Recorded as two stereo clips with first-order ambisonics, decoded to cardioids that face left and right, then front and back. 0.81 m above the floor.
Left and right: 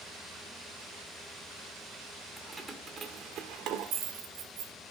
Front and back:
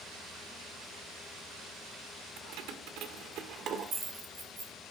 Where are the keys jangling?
175° right, 1.7 m; by 4.7 s 100° right, 2 m.